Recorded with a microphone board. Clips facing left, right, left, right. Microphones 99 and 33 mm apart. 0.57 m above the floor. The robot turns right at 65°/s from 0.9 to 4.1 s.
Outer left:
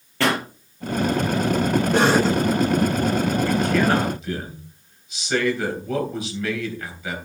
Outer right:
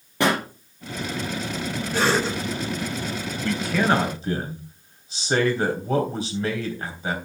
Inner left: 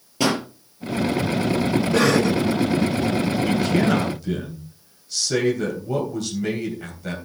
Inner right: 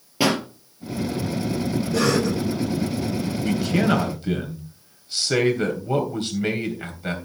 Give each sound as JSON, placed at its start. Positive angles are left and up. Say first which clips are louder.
{"t": 0.2, "sound": "a pop", "louder": "even, even", "side_deg": -15, "distance_m": 4.0}
{"t": 1.9, "sound": "a cough", "louder": "outer left 3 dB, inner left 2 dB", "side_deg": 65, "distance_m": 3.0}
{"t": 3.4, "sound": "a man speaking", "louder": "outer right 1 dB, inner right 1 dB", "azimuth_deg": 170, "distance_m": 3.0}